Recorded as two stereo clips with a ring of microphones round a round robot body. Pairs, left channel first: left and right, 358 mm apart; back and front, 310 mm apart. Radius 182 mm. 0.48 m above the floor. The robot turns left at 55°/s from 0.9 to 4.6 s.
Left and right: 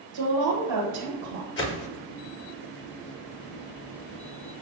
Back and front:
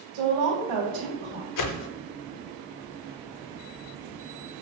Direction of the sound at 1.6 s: 150° left.